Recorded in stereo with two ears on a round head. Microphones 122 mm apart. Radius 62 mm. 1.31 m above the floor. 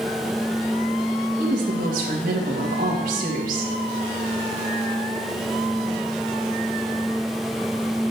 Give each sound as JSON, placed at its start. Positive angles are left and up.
{"t": 1.4, "sound": "a woman speaking", "side_deg": -65, "distance_m": 2.0}